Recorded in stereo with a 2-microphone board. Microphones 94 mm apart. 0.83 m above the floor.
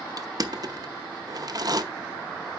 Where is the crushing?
45° right (ahead or behind), 0.6 m.